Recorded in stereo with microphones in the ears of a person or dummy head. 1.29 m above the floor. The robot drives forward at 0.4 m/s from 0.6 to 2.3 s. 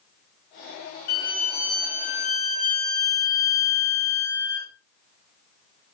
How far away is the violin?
About 2.5 m.